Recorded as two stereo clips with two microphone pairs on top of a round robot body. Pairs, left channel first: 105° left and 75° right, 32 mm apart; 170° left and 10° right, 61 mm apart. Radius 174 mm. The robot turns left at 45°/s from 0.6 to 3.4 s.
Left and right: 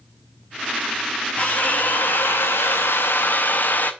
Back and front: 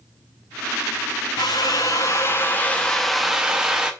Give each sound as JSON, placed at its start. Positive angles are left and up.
{"t": 1.4, "sound": "a drill", "azimuth_deg": 170, "distance_m": 0.7}